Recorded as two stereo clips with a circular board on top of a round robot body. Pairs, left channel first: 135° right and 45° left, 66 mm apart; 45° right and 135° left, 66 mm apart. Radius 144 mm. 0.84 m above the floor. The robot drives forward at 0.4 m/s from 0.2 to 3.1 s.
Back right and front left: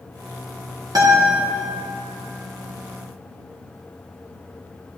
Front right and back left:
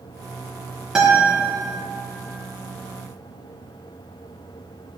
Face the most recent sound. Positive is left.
turn(degrees=75)